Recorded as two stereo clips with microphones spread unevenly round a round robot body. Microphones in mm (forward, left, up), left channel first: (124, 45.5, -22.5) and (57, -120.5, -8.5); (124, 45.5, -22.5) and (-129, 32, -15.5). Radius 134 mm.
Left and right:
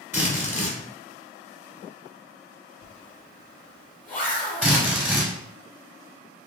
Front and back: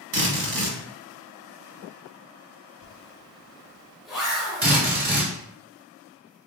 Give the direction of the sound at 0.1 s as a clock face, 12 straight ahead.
6 o'clock.